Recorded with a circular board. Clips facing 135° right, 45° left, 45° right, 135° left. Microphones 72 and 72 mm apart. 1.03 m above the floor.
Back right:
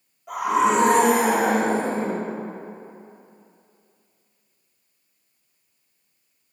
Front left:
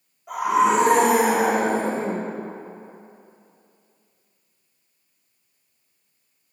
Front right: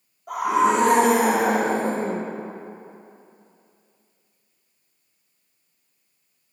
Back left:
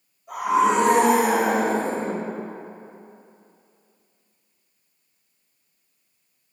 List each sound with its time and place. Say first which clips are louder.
0.3 s a scream: front left 1 dB, even; 40° right, 3 m; by 2.3 s 5° right, 0.8 m